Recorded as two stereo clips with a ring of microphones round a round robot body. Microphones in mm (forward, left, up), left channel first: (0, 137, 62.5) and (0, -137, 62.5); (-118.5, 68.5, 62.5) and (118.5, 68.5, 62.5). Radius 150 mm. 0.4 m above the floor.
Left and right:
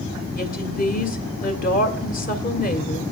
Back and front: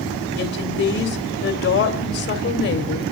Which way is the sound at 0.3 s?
145° left.